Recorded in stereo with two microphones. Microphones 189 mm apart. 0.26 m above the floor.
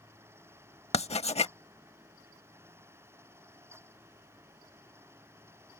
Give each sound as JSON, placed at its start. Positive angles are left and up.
{"t": 0.9, "sound": "writing", "side_deg": 35}